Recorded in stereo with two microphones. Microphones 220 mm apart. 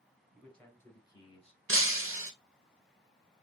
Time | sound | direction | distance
0.3 | a man speaking | centre (ahead or behind) | 1.8 m
1.7 | breaking glass | 75° right (ahead or behind) | 0.8 m